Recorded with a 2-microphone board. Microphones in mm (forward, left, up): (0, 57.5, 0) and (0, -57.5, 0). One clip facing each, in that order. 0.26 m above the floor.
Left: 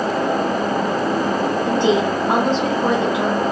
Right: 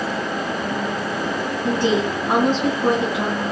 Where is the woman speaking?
25° left (ahead or behind), 1.7 m.